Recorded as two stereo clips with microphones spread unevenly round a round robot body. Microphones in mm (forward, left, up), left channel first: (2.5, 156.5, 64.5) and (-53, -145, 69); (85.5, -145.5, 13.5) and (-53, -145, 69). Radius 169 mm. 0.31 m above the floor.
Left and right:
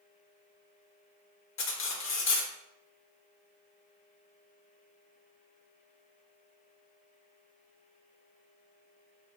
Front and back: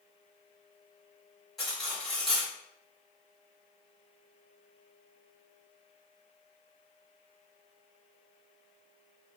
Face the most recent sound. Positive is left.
turn(degrees=60)